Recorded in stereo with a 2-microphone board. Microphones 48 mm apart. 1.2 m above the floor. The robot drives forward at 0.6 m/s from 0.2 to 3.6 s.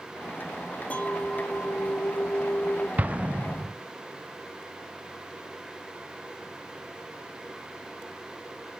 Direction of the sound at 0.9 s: 30° left (ahead or behind).